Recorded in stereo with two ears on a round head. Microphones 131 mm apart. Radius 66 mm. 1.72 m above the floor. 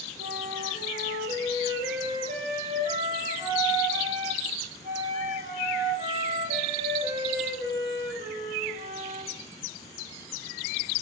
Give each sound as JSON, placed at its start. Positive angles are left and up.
{"t": 0.2, "sound": "a flute", "side_deg": -45, "distance_m": 1.5}